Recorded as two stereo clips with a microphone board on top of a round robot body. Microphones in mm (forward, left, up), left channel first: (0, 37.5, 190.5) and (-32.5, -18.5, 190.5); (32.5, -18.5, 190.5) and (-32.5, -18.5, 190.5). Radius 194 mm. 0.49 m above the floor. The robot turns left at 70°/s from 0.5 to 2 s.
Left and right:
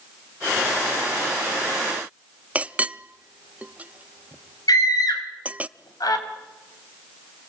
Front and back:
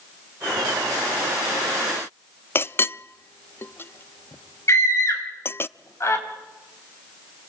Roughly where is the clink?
Ahead right.